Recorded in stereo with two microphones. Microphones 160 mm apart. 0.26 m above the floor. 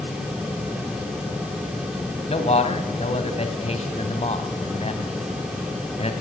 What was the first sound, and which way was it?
A man speaking, 40° left (ahead or behind).